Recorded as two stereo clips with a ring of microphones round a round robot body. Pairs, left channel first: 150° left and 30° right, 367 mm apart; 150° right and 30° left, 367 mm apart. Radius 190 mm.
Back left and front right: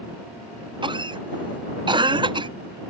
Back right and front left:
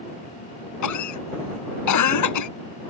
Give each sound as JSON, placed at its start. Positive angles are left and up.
{"t": 0.8, "sound": "a cough", "azimuth_deg": -110}